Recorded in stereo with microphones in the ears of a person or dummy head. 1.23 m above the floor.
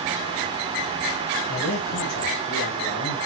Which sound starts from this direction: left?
A man speaking, at 1.5 s.